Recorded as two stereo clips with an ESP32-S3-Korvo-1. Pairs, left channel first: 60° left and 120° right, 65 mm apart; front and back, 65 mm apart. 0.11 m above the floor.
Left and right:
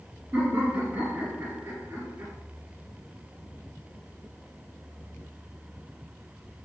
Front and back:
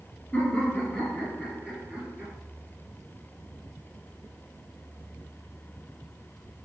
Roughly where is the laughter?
Right.